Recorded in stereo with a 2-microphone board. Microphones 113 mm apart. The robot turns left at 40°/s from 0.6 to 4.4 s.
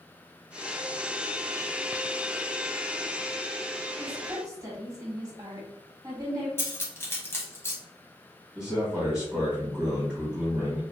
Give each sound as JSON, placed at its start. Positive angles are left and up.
{"t": 4.0, "sound": "a woman speaking", "side_deg": -25, "distance_m": 1.7}
{"t": 6.6, "sound": "cutlery clinking", "side_deg": 20, "distance_m": 0.9}
{"t": 8.6, "sound": "a man speaking", "side_deg": -5, "distance_m": 1.9}